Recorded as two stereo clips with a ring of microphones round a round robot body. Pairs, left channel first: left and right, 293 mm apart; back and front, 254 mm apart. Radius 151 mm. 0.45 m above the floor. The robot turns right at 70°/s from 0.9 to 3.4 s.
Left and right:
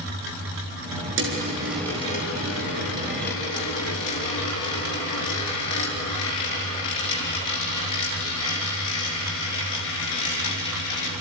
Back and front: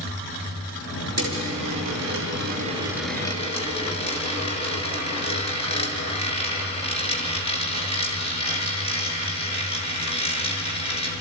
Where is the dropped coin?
40° right, 4 m; by 11.1 s 115° left, 4 m.